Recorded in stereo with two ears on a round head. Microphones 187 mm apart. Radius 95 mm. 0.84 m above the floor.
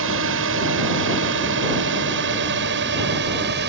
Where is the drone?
70° right (ahead or behind); by 3.7 s 55° right (ahead or behind).